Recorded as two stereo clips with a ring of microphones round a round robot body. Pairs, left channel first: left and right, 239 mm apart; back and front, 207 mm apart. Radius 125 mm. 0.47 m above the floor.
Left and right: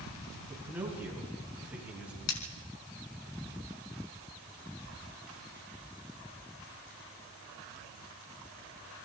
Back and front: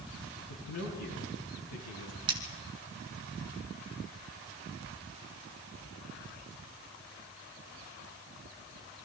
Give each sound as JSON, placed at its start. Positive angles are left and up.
{"t": 0.5, "sound": "a man speaking", "azimuth_deg": -170, "distance_m": 7.5}
{"t": 2.3, "sound": "cutlery clinking", "azimuth_deg": 65, "distance_m": 3.5}